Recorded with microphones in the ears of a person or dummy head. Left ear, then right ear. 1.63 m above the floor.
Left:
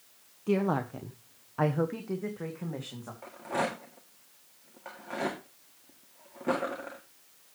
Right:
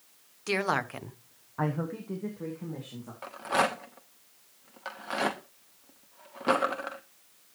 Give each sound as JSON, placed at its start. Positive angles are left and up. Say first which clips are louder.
{"t": 0.5, "sound": "a woman speaking", "louder": "right 1 dB", "side_deg": -70, "distance_m": 1.1}
{"t": 3.2, "sound": "a rattle", "louder": "right 5 dB", "side_deg": -30, "distance_m": 1.2}